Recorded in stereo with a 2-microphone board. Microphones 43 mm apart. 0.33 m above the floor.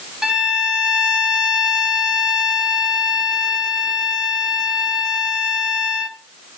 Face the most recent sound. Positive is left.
turn(degrees=-15)  # may be behind; listen again after turning